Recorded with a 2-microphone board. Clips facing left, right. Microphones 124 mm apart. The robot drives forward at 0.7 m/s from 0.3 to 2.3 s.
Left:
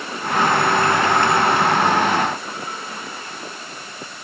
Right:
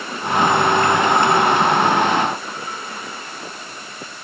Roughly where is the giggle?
No giggle in this recording.